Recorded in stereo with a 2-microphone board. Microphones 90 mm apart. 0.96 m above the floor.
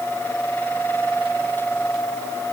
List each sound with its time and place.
Only background noise.